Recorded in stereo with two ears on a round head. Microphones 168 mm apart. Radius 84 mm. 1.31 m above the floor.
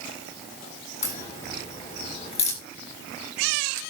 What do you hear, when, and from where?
1.0 s a crack: 35° left (ahead or behind), 5.5 m